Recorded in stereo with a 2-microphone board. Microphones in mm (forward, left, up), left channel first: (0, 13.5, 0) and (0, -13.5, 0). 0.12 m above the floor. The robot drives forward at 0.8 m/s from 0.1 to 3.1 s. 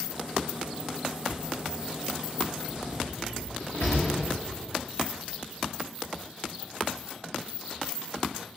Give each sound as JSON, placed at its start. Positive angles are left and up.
{"t": 1.3, "sound": "a thud", "side_deg": 45, "distance_m": 3.0}
{"t": 2.7, "sound": "a door slam", "side_deg": 65, "distance_m": 7.5}